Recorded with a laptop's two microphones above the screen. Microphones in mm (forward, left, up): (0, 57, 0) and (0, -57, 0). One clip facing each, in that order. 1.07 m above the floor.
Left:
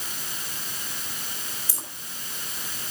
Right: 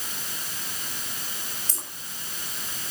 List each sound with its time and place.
1.7 s keys jangling: 10° left (ahead or behind), 3.5 m